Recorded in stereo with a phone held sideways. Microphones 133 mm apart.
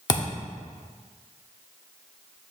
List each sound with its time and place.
0.1 s a thud: 30° left (ahead or behind), 0.9 m